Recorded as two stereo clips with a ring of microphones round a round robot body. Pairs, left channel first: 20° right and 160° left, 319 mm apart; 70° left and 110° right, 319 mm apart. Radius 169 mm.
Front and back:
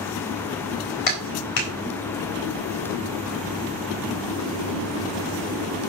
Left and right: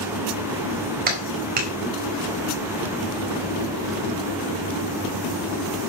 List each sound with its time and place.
1.1 s a clap: 45° right, 4 m